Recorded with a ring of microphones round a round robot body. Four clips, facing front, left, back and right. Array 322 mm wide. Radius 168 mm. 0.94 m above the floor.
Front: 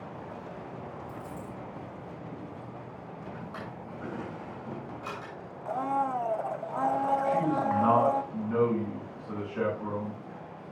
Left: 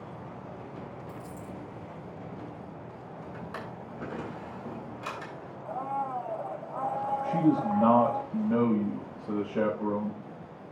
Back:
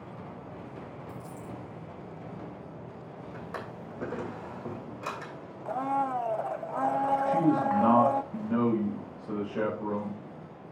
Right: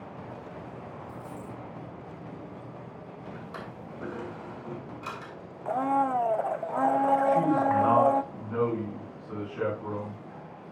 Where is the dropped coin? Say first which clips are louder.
Right 1 dB, front 1 dB; 130° left, 5.5 m.